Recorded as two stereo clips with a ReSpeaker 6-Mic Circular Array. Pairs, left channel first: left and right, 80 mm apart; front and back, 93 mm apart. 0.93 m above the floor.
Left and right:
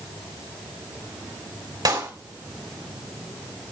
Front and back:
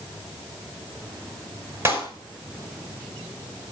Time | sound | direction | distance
1.9 | a clap | 115° right | 4.5 m